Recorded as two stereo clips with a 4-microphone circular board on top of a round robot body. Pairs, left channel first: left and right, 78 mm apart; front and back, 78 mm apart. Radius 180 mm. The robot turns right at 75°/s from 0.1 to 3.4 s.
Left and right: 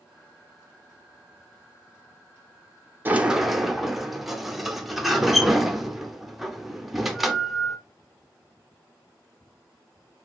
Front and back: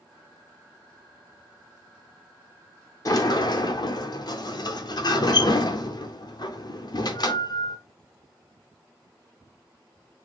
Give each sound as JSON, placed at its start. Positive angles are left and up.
{"t": 3.0, "sound": "a sliding door", "azimuth_deg": -30, "distance_m": 0.9}